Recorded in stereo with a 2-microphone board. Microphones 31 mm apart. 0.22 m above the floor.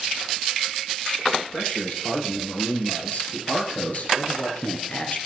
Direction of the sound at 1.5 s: 60° left (ahead or behind).